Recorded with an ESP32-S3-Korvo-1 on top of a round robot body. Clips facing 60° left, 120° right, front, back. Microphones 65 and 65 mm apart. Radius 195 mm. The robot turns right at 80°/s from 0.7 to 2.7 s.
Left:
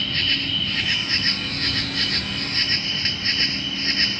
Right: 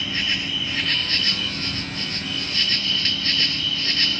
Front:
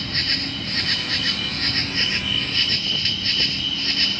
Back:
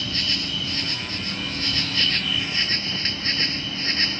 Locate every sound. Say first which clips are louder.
0.0 s an insect: left 1 dB, front 1 dB; 40° right; by 4.2 s 120° left